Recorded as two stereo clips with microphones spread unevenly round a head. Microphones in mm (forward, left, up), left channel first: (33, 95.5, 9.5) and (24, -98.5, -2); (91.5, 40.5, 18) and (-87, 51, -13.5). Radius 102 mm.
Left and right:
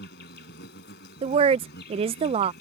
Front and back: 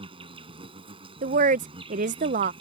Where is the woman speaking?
150° right.